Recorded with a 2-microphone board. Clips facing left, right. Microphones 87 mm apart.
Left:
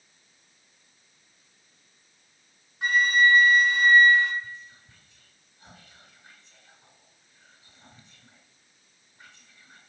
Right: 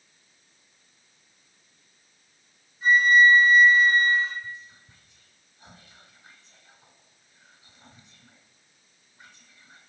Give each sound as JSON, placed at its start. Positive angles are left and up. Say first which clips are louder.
{"t": 2.8, "sound": "a flute", "louder": "right 4 dB", "side_deg": 85, "distance_m": 0.8}
{"t": 4.4, "sound": "whispering", "louder": "right 2 dB", "side_deg": -25, "distance_m": 1.7}